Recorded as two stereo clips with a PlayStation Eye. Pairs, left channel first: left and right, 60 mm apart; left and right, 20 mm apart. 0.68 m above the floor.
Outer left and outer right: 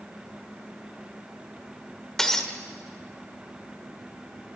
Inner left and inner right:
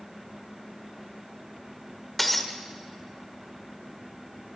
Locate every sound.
2.2 s breaking glass: 10° left (ahead or behind), 1.5 m